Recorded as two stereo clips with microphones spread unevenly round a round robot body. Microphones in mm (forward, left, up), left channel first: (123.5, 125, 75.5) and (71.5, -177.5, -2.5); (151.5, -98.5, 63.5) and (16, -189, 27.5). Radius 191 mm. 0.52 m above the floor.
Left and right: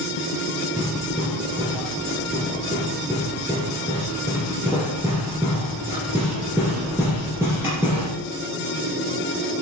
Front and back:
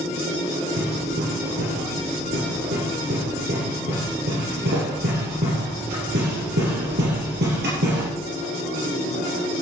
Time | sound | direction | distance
0.8 | hammering | 175° left | 4 m